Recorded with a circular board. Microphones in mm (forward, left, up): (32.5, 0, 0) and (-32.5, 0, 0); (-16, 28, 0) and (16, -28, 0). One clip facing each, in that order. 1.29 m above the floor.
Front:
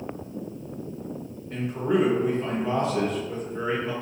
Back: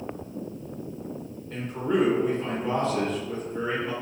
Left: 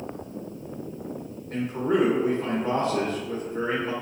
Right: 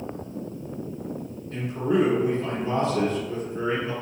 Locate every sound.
1.5 s a man speaking: 80° left, 1.2 m